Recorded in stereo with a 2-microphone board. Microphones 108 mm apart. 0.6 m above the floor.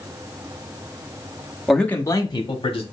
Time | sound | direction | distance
1.7 | a man speaking | centre (ahead or behind) | 0.6 m